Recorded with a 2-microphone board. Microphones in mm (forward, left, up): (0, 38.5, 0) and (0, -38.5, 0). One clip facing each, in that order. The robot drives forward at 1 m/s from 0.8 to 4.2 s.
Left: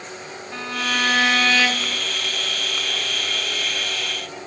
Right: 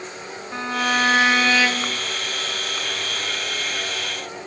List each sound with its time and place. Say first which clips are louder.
0.5 s a violin: right 3 dB; 25° right (ahead or behind), 0.7 m; by 2.0 s 10° right (ahead or behind), 1.5 m